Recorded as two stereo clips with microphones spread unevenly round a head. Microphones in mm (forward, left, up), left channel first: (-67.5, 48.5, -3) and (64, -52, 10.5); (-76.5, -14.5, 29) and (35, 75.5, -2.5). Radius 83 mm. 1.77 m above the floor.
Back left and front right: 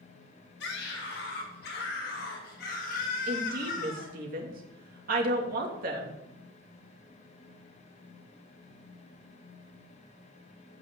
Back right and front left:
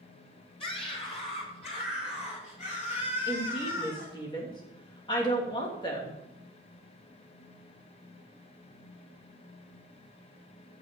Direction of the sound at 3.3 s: 75° right.